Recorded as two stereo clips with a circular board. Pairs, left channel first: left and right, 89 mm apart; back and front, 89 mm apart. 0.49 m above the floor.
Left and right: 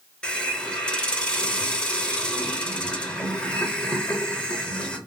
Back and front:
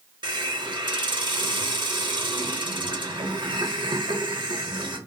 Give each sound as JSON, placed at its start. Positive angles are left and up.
{"t": 0.2, "sound": "a hiss", "azimuth_deg": 15, "distance_m": 0.6}